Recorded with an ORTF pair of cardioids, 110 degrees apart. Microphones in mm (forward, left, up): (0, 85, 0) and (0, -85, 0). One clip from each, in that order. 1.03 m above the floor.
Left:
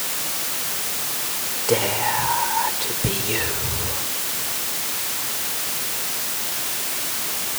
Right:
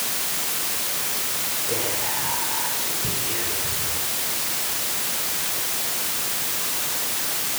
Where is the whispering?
60° left, 4 m.